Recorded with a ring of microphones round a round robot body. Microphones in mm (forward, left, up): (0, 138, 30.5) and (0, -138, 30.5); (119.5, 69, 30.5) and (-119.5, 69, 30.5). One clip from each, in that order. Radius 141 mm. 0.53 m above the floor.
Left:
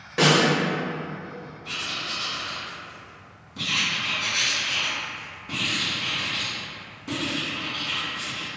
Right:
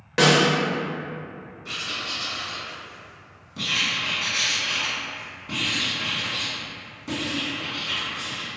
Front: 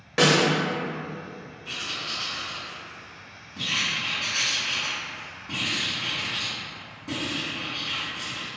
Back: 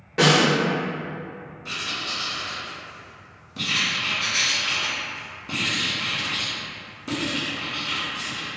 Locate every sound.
0.2 s a snare drum: 25° right, 0.8 m
1.6 s writing: 175° right, 1.5 m